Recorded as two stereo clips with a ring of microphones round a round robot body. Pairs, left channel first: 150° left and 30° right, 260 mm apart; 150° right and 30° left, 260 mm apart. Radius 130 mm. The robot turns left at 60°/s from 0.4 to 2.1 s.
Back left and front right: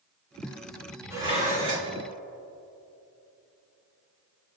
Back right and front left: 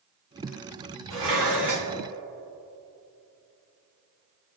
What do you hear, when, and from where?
1.1 s dishes clattering: 50° left, 2.5 m; by 1.9 s 5° left, 2.5 m